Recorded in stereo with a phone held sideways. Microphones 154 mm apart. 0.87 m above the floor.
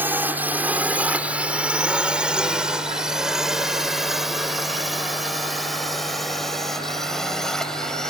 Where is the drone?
10° right (ahead or behind); by 8.1 s 5° left (ahead or behind).